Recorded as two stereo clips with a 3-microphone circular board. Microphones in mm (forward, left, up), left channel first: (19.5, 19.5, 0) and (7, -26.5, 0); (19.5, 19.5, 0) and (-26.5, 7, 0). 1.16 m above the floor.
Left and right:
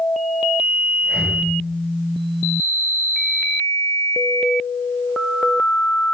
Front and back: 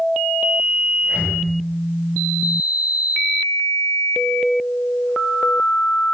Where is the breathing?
140° right, 4.5 m.